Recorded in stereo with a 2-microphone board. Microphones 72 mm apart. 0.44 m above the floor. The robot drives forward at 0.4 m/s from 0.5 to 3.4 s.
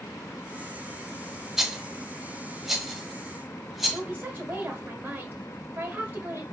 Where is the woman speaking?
25° right (ahead or behind), 1.6 m.